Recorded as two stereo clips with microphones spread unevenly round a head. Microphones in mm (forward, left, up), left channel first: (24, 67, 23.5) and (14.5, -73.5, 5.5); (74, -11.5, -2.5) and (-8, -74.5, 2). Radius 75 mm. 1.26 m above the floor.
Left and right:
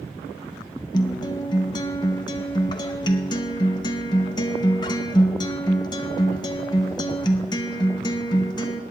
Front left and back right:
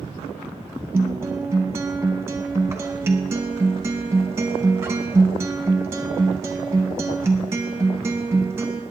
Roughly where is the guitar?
Behind left.